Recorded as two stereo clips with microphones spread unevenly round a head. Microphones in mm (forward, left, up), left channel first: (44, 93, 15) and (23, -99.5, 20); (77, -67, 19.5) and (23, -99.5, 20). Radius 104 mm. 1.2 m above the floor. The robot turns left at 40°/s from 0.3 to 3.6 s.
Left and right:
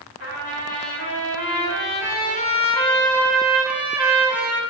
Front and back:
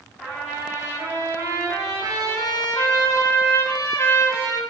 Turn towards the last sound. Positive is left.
turn(degrees=-15)